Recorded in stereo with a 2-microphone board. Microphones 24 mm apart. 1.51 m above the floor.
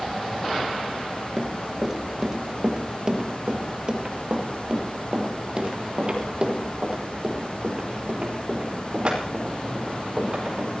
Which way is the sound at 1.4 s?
15° right (ahead or behind).